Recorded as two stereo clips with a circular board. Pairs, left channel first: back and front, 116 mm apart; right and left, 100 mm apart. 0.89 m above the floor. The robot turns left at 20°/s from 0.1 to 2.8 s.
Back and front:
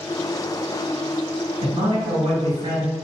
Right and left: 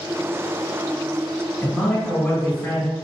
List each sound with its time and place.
1.6 s a man speaking: 10° right, 1.4 m; by 2.9 s 30° right, 1.4 m